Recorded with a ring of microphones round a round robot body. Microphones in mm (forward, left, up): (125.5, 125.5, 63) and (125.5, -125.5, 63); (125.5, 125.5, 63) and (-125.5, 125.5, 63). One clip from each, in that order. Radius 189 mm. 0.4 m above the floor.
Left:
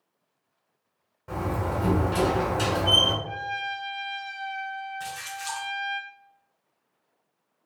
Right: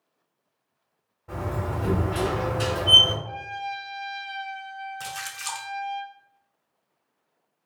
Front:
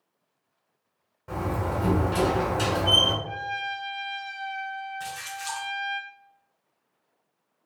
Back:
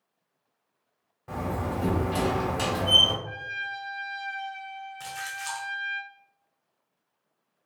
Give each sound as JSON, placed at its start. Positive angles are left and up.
{"t": 1.3, "sound": "a door slam", "azimuth_deg": 125, "distance_m": 2.0}
{"t": 3.2, "sound": "a trumpet", "azimuth_deg": 95, "distance_m": 1.5}
{"t": 5.0, "sound": "a splash", "azimuth_deg": -115, "distance_m": 0.7}